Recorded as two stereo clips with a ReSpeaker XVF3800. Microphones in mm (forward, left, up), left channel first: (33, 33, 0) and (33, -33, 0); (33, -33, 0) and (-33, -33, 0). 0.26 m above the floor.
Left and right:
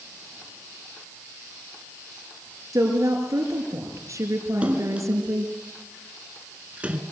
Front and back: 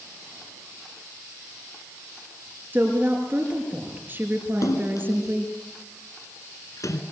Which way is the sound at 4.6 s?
25° right.